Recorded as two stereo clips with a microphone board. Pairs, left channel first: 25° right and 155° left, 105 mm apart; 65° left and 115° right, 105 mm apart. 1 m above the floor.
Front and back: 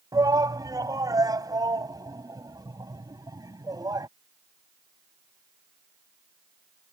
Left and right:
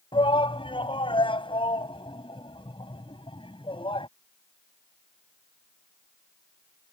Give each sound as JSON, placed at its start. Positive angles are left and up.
{"t": 0.1, "sound": "a shout", "azimuth_deg": 100}